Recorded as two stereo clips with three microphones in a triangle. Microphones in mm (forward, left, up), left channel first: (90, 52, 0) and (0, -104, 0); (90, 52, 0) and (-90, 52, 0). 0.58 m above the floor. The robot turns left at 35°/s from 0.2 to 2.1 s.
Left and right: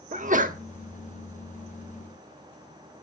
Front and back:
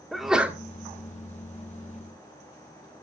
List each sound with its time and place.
0.1 s a sneeze: 90° right, 1.0 m; by 0.6 s 105° right, 1.0 m